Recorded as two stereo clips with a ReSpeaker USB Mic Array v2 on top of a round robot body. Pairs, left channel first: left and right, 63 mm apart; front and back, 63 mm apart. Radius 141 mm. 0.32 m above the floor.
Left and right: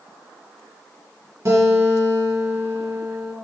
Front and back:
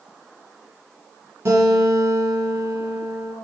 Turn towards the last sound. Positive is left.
turn(degrees=-130)